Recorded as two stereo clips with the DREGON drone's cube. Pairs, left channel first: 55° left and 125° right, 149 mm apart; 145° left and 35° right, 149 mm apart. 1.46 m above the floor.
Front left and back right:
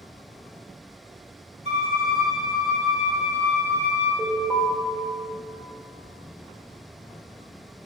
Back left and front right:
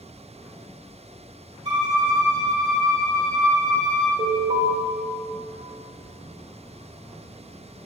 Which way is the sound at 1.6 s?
85° right.